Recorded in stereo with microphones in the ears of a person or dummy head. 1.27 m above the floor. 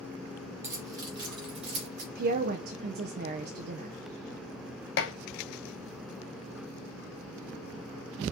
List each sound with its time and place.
0.6 s keys jangling: 15° right (ahead or behind), 1.6 m; by 2.0 s 40° right (ahead or behind), 1.7 m
2.1 s a woman speaking: 55° right (ahead or behind), 0.5 m
5.0 s dishes clattering: 60° left (ahead or behind), 0.6 m